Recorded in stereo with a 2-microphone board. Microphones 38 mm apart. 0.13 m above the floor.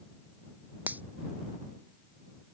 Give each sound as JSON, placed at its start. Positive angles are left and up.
{"t": 0.9, "sound": "a finger snap", "side_deg": -50}